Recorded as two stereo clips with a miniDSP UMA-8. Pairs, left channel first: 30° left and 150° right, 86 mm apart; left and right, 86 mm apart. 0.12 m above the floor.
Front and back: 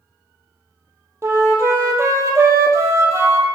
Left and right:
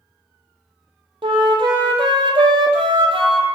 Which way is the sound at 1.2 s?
95° right.